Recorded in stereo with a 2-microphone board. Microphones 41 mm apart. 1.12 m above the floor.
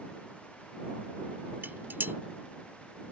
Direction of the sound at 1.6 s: 60° right (ahead or behind).